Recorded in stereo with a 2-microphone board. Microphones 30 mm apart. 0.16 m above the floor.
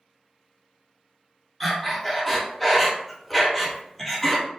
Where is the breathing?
5° left (ahead or behind), 0.7 m.